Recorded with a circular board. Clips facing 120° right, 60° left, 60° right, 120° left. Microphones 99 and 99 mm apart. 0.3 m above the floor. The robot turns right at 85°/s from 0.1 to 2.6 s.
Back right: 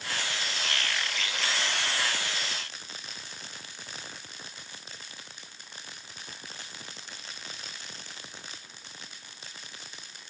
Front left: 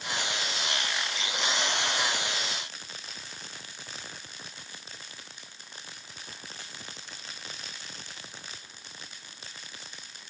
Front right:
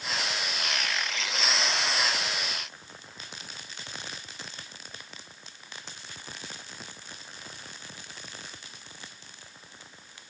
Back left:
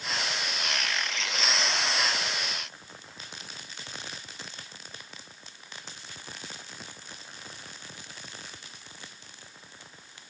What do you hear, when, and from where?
Only background noise.